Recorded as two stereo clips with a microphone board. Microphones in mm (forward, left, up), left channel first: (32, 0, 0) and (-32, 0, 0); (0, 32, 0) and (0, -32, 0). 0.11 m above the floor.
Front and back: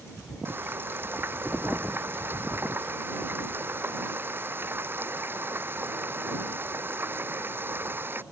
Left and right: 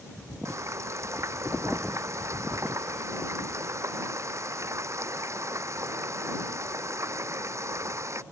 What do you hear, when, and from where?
0.5 s frying: 125° right